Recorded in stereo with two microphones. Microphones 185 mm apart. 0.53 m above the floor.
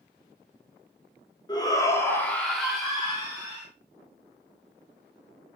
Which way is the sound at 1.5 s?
25° left (ahead or behind).